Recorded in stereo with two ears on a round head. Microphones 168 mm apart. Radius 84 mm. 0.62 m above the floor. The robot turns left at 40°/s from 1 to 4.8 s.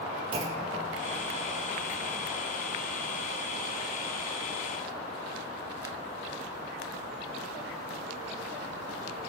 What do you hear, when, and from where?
0.3 s a clunk: 25° right (ahead or behind), 0.5 m